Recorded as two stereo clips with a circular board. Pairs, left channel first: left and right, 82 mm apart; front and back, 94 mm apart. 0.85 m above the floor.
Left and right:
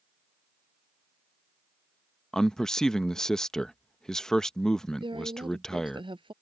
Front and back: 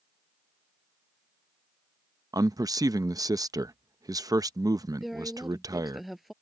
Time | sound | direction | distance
2.3 | a man speaking | 170° left | ?
5.0 | a woman speaking | 90° right | ?